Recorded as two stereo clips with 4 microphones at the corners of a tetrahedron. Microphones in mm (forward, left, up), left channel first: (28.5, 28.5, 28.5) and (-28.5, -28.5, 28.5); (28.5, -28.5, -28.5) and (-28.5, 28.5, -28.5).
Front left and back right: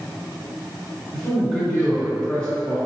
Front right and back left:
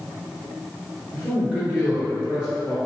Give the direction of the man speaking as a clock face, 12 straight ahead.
7 o'clock.